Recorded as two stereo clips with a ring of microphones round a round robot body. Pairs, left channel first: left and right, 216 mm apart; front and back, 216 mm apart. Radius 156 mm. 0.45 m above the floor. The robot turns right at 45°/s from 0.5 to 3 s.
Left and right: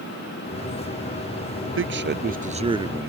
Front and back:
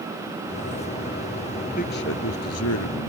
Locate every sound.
1.6 s a man speaking: 75° right; by 3.1 s 10° right